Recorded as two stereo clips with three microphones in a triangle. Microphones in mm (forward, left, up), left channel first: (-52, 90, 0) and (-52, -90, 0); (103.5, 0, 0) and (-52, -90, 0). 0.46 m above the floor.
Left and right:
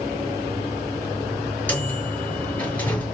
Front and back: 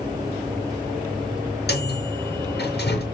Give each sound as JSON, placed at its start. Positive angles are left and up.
{"t": 1.7, "sound": "a microwave", "azimuth_deg": 10, "distance_m": 5.5}